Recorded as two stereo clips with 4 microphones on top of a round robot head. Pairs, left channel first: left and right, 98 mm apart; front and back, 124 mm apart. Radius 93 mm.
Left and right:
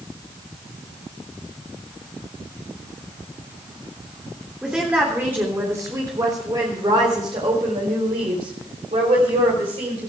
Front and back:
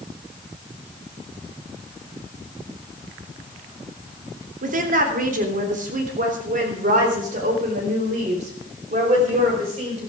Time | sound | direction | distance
4.6 | a woman speaking | 175° right | 3 m